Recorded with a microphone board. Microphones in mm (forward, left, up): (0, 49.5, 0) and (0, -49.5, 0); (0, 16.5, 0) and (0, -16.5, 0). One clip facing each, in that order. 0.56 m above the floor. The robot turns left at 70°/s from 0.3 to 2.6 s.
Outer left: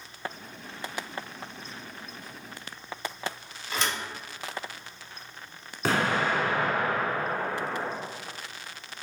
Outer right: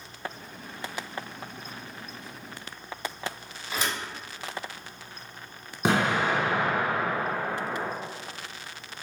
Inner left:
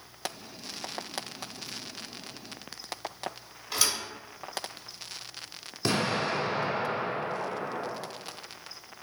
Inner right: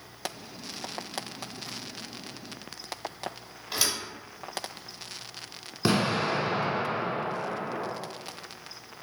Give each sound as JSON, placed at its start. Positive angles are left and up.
{"t": 3.7, "sound": "a thud", "side_deg": -5, "distance_m": 1.4}
{"t": 5.8, "sound": "an explosion", "side_deg": -20, "distance_m": 0.9}